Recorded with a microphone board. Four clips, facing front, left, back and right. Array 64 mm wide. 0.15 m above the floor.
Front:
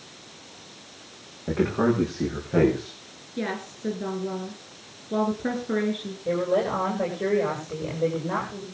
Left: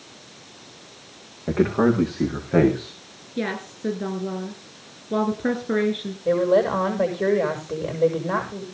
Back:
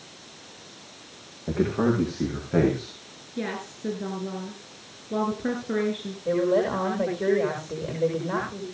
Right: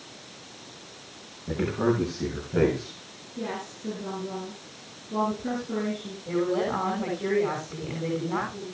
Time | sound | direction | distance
1.5 | a man speaking | 90° left | 6 m
3.4 | a woman speaking | 85° left | 2 m
6.2 | a woman speaking | 95° left | 8 m